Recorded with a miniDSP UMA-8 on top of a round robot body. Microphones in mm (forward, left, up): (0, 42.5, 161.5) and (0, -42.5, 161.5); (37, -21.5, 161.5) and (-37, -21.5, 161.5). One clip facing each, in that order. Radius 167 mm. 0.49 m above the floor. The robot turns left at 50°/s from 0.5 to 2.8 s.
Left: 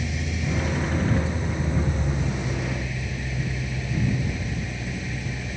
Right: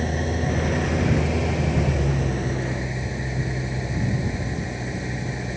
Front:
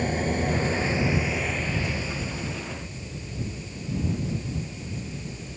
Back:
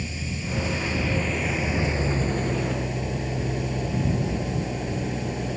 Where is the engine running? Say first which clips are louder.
Right 5 dB, front 7 dB; 40° right; by 5.6 s 155° right.